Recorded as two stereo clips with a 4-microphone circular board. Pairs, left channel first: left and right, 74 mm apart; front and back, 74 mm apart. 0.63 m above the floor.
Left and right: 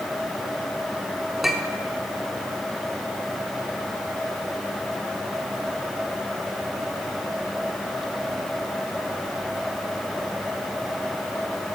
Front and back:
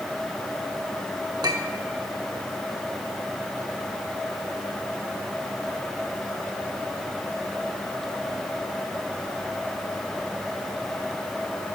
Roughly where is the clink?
Behind.